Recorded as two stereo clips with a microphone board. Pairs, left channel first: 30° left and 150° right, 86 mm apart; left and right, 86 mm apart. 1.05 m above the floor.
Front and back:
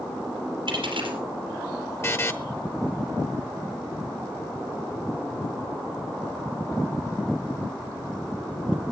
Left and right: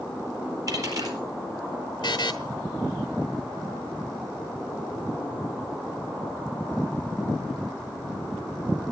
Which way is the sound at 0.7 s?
135° right.